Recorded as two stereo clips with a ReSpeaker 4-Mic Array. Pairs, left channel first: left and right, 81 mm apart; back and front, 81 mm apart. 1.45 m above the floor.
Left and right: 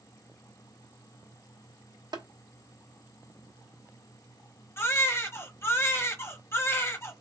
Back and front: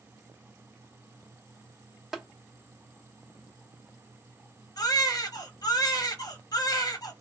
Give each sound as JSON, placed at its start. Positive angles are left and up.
{"t": 2.1, "sound": "tapping", "azimuth_deg": -85, "distance_m": 0.9}
{"t": 4.8, "sound": "a baby crying", "azimuth_deg": 145, "distance_m": 1.0}